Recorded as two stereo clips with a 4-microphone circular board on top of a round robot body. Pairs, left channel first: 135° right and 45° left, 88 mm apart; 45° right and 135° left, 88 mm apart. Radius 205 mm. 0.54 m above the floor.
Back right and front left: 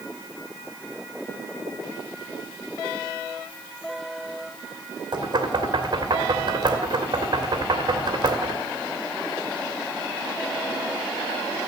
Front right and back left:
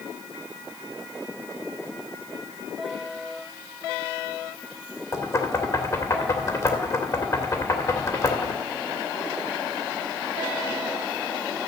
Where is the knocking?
5° left, 2 m.